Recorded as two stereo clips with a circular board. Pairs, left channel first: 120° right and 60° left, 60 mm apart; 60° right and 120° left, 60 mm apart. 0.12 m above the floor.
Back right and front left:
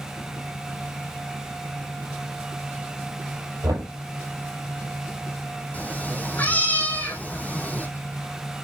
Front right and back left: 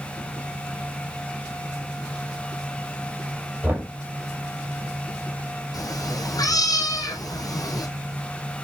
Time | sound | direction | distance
3.6 | knocking | 60° left | 3 m
5.7 | a cat meowing | 60° right | 1.6 m